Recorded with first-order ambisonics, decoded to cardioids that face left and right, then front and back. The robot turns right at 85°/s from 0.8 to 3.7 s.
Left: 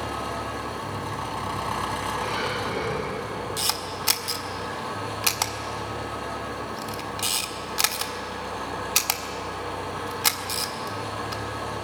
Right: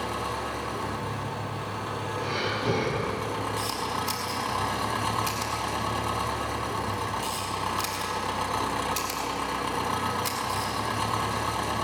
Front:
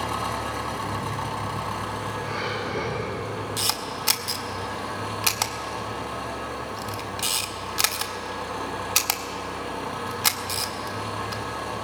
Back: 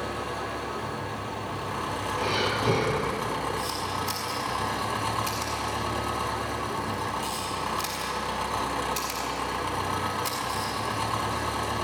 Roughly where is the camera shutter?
Ahead left.